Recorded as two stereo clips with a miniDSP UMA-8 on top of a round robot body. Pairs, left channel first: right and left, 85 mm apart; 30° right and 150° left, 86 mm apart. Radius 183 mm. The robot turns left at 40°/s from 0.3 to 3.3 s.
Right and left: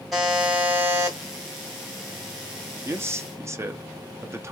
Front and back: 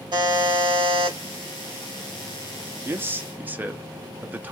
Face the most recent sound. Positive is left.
turn(degrees=105)